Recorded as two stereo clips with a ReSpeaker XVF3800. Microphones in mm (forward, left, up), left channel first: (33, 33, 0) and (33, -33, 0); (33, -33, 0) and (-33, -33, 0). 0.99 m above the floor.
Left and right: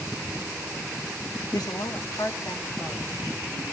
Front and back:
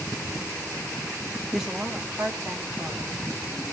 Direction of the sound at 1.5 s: 90° left.